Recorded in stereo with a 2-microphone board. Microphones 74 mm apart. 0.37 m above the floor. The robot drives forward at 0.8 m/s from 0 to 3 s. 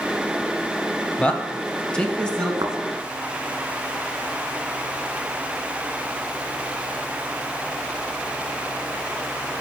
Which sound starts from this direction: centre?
A man speaking, at 1.2 s.